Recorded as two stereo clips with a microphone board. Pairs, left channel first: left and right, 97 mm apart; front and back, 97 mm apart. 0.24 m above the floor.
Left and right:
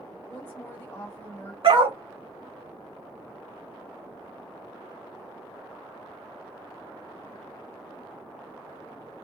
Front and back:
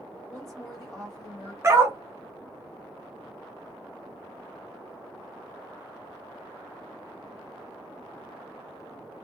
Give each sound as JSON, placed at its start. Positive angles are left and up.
{"t": 0.3, "sound": "a woman speaking", "azimuth_deg": 80, "distance_m": 1.2}
{"t": 1.6, "sound": "a dog barking", "azimuth_deg": -120, "distance_m": 0.6}